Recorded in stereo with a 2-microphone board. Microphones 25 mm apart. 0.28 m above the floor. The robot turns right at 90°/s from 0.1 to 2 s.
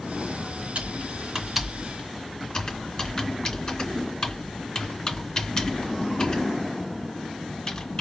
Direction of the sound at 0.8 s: 55° right (ahead or behind).